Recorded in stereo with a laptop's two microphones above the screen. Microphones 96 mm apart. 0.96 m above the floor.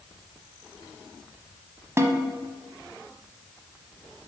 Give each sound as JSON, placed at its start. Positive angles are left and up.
{"t": 2.0, "sound": "a snare drum", "side_deg": -30, "distance_m": 0.9}